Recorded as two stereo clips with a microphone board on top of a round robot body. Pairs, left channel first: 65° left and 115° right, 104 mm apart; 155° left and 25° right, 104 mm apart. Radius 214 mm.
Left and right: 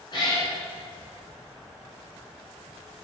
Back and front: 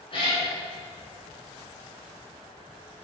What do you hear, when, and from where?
0.1 s a cat meowing: 115° left, 2 m